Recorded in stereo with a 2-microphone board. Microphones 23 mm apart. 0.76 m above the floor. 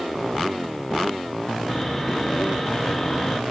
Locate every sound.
1.7 s sawing: 10° left (ahead or behind), 0.6 m